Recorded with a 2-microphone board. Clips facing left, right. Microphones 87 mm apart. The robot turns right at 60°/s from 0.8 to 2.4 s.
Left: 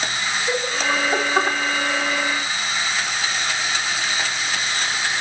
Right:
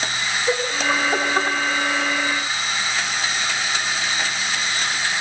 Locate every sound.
0.5 s laughter: 20° right (ahead or behind), 3.5 m; by 1.6 s 25° left (ahead or behind), 3.5 m